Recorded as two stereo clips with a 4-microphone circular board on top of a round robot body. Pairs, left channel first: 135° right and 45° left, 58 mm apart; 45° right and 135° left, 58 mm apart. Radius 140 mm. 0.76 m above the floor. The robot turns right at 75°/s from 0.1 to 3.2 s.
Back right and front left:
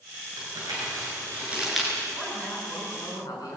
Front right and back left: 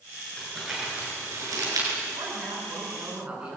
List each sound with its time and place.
0.4 s crumpling: 30° left, 8 m; by 1.9 s 145° left, 8 m
2.1 s a woman speaking: 130° left, 9.5 m; by 3.6 s 150° right, 9.5 m